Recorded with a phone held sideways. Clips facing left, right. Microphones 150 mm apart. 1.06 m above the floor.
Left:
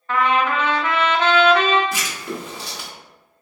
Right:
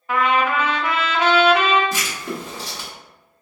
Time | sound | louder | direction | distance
0.1 | a trumpet | even | 10° right (ahead or behind) | 0.8 m
1.9 | writing | right 1 dB | 40° right (ahead or behind) | 1.6 m